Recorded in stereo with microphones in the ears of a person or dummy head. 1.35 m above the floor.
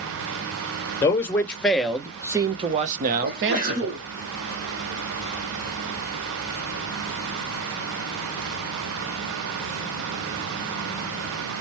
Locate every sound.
1.0 s a man speaking: 15° left (ahead or behind), 1.3 m; by 4.0 s 75° right (ahead or behind), 1.0 m
3.2 s a sneeze: 40° right (ahead or behind), 1.2 m